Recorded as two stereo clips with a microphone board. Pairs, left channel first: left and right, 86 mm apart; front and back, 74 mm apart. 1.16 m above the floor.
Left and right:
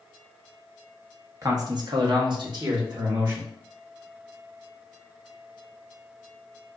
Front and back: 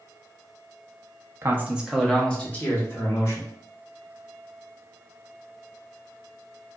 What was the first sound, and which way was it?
A man speaking, 130° right.